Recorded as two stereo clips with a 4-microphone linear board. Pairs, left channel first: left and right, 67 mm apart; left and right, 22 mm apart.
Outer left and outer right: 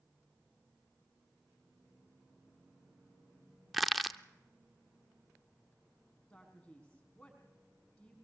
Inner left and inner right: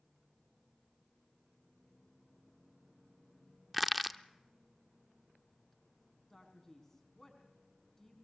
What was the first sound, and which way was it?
Crushing, centre (ahead or behind).